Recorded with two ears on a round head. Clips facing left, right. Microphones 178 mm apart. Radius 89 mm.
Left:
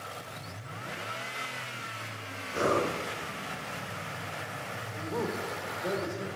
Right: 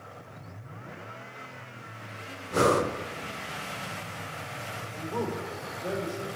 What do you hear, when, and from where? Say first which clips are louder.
2.5 s breathing: right 4 dB; 65° right (ahead or behind), 1.1 m
4.9 s a man speaking: right 1 dB; 5° left (ahead or behind), 2.5 m